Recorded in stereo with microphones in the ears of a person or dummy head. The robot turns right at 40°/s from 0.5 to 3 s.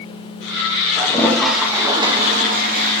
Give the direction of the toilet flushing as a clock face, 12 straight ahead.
7 o'clock.